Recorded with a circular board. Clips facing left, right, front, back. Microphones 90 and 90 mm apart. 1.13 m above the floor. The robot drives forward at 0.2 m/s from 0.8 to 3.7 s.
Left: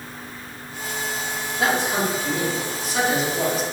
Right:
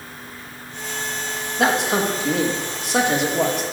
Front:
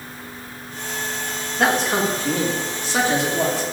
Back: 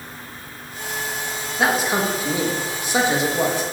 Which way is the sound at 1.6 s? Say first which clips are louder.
Right 3 dB, front 1 dB; 95° right.